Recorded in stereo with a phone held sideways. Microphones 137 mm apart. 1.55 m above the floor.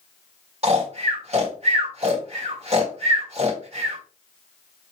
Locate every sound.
0.6 s snoring: 50° right (ahead or behind), 1.9 m